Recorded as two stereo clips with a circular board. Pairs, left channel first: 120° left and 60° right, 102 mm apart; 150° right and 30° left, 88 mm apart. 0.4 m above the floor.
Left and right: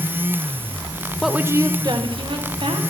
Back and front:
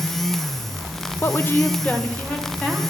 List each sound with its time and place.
1.2 s a woman speaking: 155° right, 0.8 m; by 2.8 s 70° right, 2.5 m